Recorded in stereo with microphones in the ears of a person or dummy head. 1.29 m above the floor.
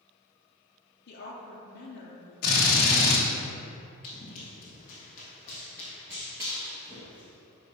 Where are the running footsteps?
25° left (ahead or behind), 1.4 m; by 7.4 s 30° right (ahead or behind), 1.8 m.